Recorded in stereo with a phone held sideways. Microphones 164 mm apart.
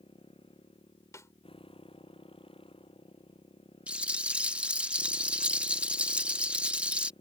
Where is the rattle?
10° right (ahead or behind).